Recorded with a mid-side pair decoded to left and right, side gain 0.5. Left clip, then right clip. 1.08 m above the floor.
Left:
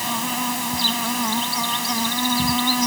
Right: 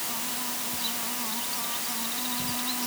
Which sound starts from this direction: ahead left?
An insect, at 0.0 s.